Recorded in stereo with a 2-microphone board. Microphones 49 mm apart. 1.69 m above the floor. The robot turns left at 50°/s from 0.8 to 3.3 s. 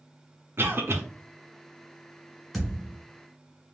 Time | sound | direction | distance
0.6 | a cough | 50° right (ahead or behind) | 0.7 m
2.5 | a thud | centre (ahead or behind) | 1.6 m